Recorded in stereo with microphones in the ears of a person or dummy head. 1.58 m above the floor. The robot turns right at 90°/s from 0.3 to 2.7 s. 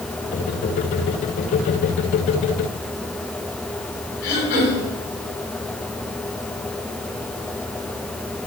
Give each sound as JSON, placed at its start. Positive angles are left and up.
{"t": 4.2, "sound": "throat clearing", "side_deg": 60, "distance_m": 4.5}